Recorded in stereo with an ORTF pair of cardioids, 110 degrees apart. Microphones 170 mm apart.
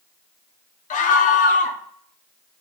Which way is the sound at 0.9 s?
50° left.